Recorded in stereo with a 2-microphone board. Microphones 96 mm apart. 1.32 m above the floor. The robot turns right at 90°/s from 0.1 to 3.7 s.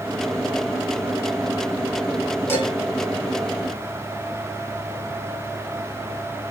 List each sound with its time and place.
2.5 s dishes clattering: 30° left (ahead or behind), 7.5 m; by 2.7 s 10° left (ahead or behind), 7.5 m